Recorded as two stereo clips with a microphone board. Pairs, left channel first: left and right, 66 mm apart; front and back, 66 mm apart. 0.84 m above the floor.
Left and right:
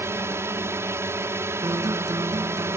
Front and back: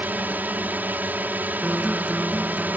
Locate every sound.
0.0 s a drone: 125° right
1.6 s a guitar: 105° right